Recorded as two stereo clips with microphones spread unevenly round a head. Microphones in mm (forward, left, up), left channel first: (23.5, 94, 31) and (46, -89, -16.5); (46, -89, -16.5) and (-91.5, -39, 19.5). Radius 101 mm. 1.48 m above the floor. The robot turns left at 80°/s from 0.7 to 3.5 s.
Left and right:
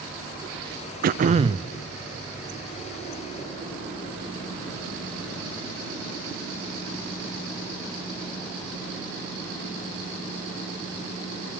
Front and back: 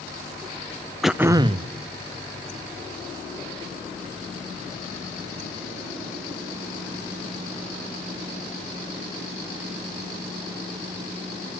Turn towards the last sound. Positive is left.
turn(degrees=60)